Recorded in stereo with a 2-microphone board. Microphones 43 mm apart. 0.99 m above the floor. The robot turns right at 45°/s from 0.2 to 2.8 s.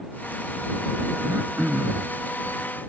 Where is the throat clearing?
55° right; by 2.1 s 15° right.